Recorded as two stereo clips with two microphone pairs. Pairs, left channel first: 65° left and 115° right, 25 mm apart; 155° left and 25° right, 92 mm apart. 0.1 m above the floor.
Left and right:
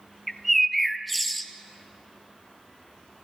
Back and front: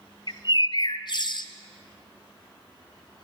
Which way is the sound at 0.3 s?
155° left.